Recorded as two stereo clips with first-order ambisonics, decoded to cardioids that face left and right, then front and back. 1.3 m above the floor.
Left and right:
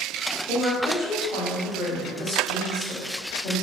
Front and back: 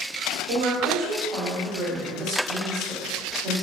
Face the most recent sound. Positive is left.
turn(degrees=145)